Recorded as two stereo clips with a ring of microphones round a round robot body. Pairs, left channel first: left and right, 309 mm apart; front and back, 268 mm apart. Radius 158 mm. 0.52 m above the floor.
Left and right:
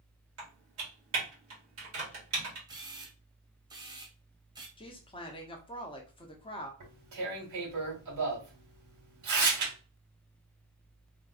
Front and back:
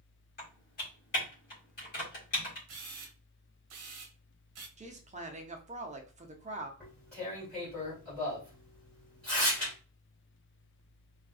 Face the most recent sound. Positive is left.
turn(degrees=-85)